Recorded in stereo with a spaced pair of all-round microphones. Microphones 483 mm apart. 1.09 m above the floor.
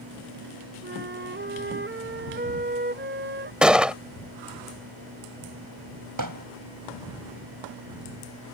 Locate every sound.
0.8 s a flute: 25° right (ahead or behind)
3.6 s a gunshot: centre (ahead or behind)
6.2 s hammering: 45° right (ahead or behind)